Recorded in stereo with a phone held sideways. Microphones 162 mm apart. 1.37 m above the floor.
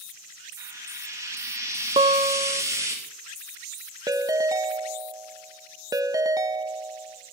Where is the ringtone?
20° right (ahead or behind), 0.7 m.